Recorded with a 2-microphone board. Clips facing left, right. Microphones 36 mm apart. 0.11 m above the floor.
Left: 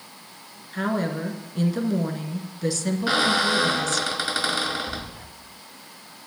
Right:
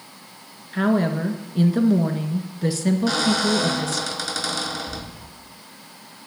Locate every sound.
0.7 s a woman speaking: 15° right (ahead or behind), 1.3 m
3.1 s a squeak: 25° left (ahead or behind), 0.7 m